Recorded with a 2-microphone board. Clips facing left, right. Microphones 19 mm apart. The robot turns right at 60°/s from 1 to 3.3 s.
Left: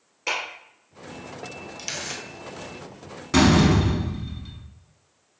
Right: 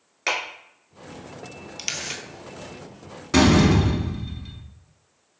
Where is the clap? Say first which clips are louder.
Right 2 dB; 55° right (ahead or behind), 1.8 m.